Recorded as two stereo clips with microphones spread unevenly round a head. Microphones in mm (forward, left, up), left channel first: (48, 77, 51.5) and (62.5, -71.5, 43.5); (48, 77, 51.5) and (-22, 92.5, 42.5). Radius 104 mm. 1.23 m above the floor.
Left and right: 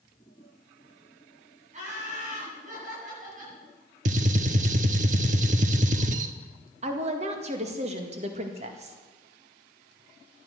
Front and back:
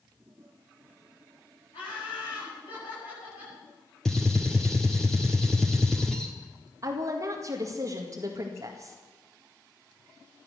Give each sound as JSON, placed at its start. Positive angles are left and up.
{"t": 1.7, "sound": "laughter", "azimuth_deg": -45, "distance_m": 10.0}
{"t": 4.0, "sound": "a gunshot", "azimuth_deg": -90, "distance_m": 0.8}
{"t": 6.8, "sound": "a woman speaking", "azimuth_deg": -135, "distance_m": 1.9}